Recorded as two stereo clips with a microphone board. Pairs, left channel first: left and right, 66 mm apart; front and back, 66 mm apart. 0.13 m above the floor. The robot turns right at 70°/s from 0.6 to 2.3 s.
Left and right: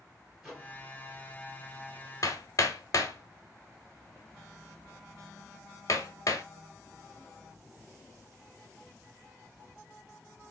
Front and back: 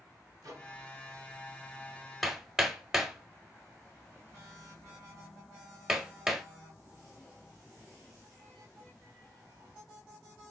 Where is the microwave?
175° right, 1.8 m; by 0.8 s 160° right, 1.8 m.